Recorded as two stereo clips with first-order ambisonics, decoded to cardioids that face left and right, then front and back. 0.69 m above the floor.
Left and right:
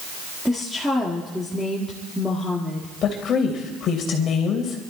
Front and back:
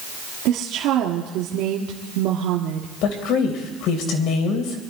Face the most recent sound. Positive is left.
turn(degrees=35)